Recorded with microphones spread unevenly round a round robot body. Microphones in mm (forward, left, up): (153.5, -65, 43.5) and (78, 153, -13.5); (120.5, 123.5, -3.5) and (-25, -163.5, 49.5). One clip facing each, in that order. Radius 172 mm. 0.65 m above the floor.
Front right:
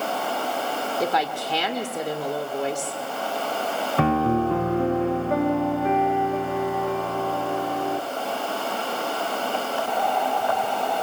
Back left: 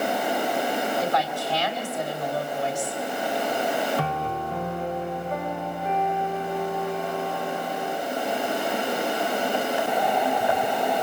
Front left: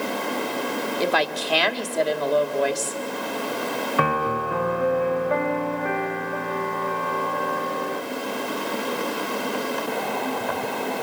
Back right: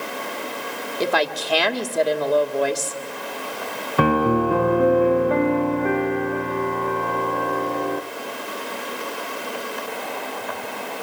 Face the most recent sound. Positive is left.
turn(degrees=-75)